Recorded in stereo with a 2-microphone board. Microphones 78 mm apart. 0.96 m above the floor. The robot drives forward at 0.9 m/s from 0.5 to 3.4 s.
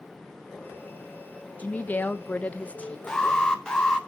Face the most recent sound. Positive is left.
turn(degrees=10)  # may be behind; listen again after turning